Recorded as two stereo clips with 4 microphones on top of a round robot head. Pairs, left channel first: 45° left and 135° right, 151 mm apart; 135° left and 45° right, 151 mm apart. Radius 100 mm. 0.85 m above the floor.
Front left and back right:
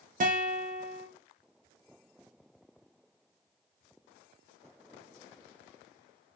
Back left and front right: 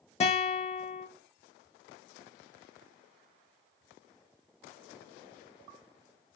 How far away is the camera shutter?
No camera shutter in this recording.